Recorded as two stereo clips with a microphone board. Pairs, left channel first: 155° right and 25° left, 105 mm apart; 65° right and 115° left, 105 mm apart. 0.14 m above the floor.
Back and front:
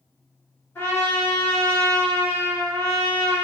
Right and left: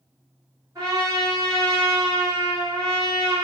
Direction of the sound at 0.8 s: 145° left.